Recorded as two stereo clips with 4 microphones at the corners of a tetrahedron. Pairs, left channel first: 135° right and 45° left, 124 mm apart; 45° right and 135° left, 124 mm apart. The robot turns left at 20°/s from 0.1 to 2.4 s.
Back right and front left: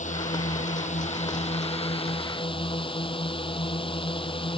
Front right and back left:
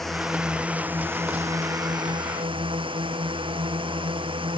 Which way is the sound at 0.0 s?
135° right.